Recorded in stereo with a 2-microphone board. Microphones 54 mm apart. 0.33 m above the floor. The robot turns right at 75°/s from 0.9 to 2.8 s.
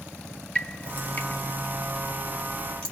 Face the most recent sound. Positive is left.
turn(degrees=15)  # may be behind; listen again after turning